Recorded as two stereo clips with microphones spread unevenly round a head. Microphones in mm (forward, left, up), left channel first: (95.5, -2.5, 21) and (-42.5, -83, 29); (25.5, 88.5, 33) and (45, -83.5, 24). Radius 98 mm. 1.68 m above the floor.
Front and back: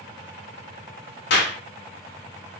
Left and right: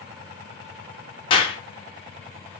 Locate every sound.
1.3 s a clap: 45° left, 0.5 m